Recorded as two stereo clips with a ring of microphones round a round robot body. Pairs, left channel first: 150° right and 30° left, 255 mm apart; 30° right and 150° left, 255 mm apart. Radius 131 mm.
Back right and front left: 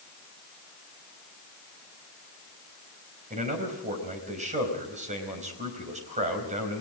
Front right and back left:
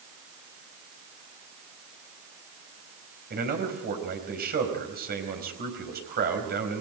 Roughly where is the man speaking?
Left.